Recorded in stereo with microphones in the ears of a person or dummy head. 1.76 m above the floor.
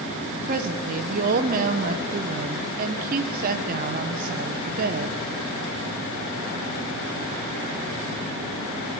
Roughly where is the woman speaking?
Right.